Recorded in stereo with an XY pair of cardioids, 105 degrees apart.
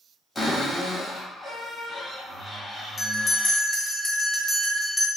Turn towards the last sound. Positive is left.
turn(degrees=15)